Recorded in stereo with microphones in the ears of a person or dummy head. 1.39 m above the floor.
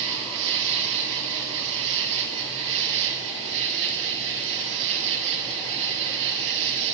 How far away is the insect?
About 1.1 m.